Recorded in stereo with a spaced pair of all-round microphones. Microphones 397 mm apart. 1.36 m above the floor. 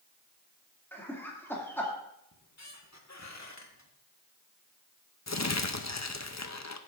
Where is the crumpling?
45° left (ahead or behind), 0.7 m.